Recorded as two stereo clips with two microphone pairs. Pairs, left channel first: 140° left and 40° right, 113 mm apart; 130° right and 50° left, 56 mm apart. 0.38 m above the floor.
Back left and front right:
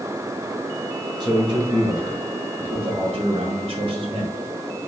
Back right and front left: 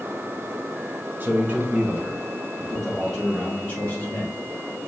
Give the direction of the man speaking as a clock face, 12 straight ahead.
12 o'clock.